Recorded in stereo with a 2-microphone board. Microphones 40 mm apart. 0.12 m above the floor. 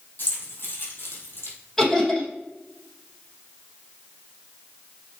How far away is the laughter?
About 3.5 m.